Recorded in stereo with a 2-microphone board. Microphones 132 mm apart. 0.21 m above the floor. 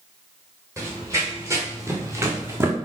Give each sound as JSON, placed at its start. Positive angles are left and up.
{"t": 0.8, "sound": "running footsteps", "side_deg": -25, "distance_m": 3.5}